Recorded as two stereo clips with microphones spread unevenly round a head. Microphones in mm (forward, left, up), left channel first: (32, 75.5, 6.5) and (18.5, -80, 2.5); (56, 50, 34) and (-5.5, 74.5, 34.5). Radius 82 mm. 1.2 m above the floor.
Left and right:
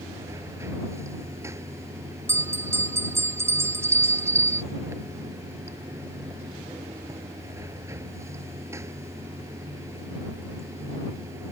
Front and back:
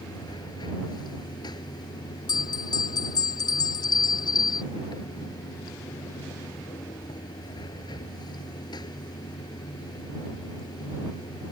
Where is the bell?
20° right.